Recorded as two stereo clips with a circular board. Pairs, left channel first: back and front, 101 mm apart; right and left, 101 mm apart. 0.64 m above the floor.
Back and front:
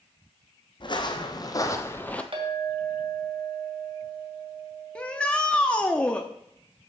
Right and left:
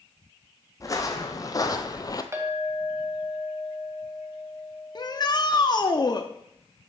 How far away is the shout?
About 0.8 m.